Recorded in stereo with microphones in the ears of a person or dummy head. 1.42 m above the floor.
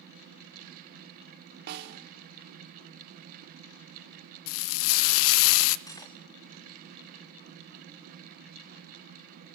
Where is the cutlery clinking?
15° left (ahead or behind), 1.7 m.